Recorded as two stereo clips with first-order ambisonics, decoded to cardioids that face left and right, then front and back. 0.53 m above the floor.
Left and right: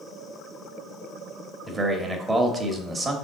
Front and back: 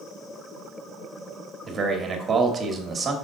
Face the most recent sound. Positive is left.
turn(degrees=-145)